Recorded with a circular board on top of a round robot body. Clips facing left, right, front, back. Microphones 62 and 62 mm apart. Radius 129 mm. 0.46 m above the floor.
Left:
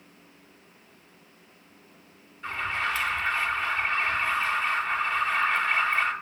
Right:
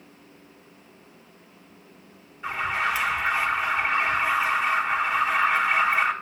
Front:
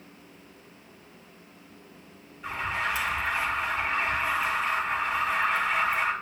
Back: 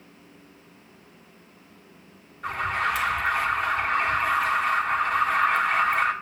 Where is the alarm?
170° right, 2.5 m.